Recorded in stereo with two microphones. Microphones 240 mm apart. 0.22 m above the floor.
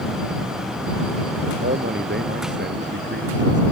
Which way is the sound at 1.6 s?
45° right (ahead or behind).